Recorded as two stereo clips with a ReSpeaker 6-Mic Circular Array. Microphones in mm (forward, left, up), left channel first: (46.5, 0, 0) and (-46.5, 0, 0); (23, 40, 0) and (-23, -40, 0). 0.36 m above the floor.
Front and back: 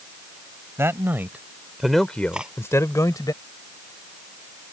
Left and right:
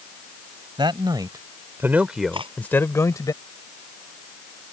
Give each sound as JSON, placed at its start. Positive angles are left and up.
{"t": 0.8, "sound": "a man speaking", "azimuth_deg": -125}
{"t": 2.3, "sound": "cutlery clinking", "azimuth_deg": -100}